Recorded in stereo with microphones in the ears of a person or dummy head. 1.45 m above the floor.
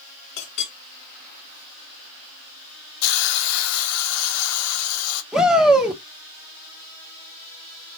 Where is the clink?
70° left (ahead or behind), 1.6 m.